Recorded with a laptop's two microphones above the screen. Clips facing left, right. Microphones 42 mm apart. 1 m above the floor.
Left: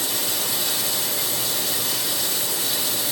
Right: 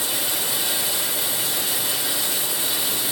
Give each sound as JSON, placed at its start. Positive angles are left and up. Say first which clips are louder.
{"t": 0.0, "sound": "running water", "louder": "even", "side_deg": -20, "distance_m": 5.0}